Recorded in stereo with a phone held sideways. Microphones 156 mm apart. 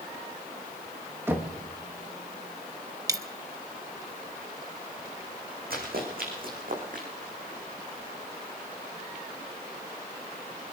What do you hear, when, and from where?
1.3 s knocking: 15° right (ahead or behind), 1.6 m
3.1 s a dropped coin: 20° right (ahead or behind), 0.7 m
5.7 s running footsteps: 70° right (ahead or behind), 5 m; by 7.1 s 60° right (ahead or behind), 5.5 m